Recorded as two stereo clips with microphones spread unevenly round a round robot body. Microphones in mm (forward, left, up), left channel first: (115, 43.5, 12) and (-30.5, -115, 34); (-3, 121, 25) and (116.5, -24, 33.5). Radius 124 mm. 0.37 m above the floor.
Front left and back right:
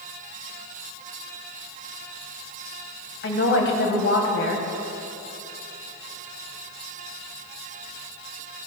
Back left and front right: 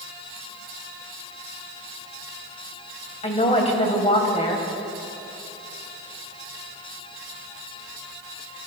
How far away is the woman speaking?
About 2.5 m.